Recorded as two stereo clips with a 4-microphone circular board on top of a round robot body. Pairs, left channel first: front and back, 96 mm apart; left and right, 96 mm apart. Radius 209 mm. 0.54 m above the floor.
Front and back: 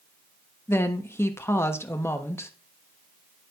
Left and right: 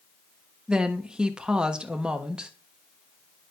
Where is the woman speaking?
20° right, 1.3 m.